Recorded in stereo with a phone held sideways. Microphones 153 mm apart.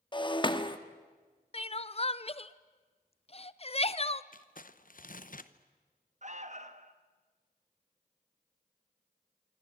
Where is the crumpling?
65° left (ahead or behind), 0.9 m.